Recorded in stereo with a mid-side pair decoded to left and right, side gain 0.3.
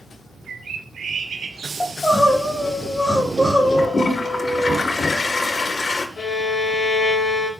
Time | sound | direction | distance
0.5 | a bird | 65° right | 2.5 m
1.8 | crying | 25° left | 5 m
3.8 | a toilet flushing | 50° left | 1.6 m
6.2 | a violin | 55° left | 5 m